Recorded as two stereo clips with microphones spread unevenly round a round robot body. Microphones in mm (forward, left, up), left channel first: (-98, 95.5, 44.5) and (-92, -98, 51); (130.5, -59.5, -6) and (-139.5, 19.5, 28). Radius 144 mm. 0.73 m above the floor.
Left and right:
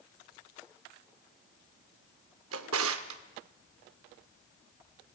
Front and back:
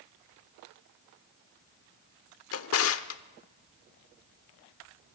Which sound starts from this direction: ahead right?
A drawer, at 2.5 s.